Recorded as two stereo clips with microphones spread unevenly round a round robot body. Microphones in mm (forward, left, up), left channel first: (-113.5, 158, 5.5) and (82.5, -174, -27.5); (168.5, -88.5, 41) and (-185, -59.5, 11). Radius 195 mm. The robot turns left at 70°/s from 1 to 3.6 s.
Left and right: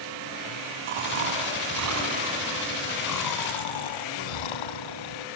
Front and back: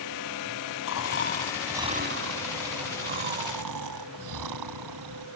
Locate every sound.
0.9 s snoring: 50° right; by 5.3 s 130° left